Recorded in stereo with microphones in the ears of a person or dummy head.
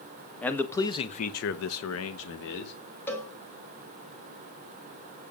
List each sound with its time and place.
0.4 s a man speaking: 5° left (ahead or behind), 1.7 m; by 2.7 s 60° left (ahead or behind), 1.8 m
3.1 s a cowbell: 10° left (ahead or behind), 1.9 m